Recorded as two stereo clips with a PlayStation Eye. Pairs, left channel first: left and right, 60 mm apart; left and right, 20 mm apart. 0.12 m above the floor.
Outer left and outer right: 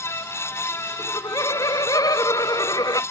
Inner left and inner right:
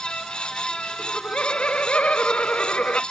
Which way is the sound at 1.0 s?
80° left.